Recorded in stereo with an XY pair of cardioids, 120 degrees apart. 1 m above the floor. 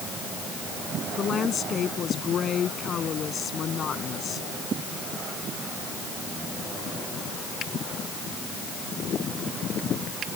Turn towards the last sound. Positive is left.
turn(degrees=45)